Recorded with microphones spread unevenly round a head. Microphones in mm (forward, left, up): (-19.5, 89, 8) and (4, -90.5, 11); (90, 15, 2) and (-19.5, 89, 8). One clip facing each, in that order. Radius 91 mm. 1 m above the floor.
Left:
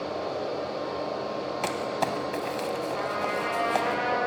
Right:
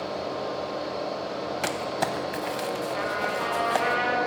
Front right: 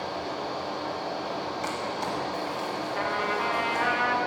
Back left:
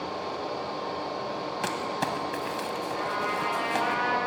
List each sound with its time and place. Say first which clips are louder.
0.0 s a fan: even, front right 1 dB; 10° right, 2.5 m
1.6 s crumpling: even, back left 1 dB; 165° right, 0.5 m
3.0 s a trumpet: right 1 dB, front right 3 dB; 10° right, 1.6 m